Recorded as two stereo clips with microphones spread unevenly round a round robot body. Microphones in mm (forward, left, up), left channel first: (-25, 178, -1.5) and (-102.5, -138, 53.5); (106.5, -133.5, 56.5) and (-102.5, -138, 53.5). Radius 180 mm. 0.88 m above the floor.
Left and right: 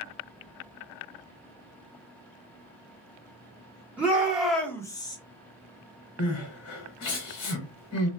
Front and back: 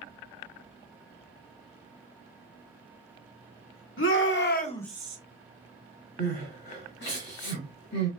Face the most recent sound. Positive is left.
turn(degrees=30)